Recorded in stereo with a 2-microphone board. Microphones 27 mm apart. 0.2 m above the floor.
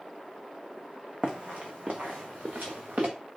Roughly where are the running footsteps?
Right.